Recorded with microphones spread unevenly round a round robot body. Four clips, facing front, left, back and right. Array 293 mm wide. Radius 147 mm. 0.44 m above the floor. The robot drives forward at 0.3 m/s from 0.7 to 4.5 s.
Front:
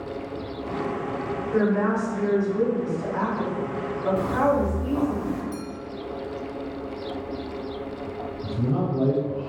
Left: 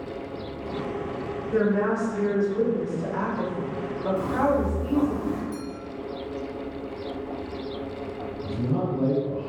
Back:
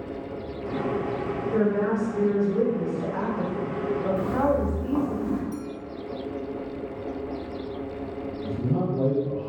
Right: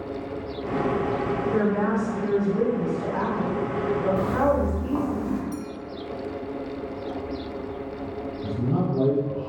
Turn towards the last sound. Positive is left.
turn(degrees=-95)